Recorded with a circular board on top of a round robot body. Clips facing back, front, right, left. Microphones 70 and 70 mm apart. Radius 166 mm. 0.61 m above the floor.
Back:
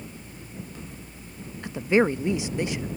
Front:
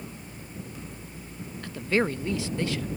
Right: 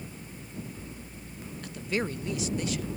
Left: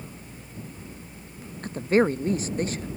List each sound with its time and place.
1.6 s a woman speaking: 115° left